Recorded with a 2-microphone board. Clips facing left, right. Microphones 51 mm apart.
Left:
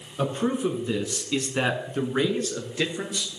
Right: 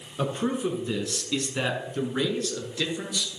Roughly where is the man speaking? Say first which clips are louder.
Left 2 dB; centre.